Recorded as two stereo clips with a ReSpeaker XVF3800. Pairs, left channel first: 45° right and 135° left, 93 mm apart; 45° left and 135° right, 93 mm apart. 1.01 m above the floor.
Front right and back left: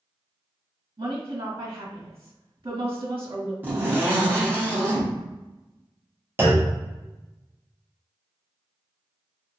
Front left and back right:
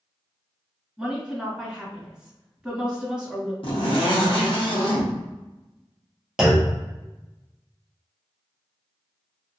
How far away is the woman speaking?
About 1.5 m.